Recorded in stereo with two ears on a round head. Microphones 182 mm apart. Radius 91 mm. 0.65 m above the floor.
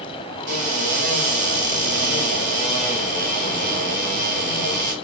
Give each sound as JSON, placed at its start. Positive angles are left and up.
{"t": 0.5, "sound": "a cupboard door", "side_deg": -40, "distance_m": 1.3}